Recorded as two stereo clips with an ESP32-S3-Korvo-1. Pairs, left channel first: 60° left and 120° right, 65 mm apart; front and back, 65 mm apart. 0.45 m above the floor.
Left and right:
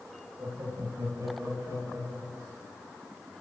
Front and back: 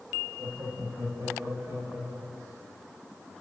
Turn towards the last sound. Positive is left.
turn(degrees=-145)